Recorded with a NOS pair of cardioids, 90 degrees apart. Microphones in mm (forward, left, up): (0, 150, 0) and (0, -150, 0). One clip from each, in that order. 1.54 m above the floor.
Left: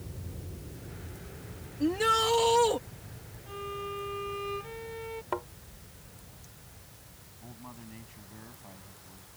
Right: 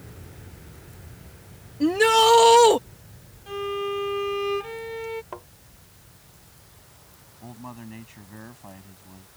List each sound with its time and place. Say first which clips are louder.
1.8 s a shout: right 9 dB; 50° right; by 2.8 s 65° right
3.5 s a violin: right 9 dB; 45° right
5.3 s a thud: left 5 dB; 35° left
7.4 s a man speaking: right 8 dB; 55° right